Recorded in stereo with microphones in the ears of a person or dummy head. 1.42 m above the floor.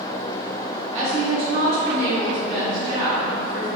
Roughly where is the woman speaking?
Right.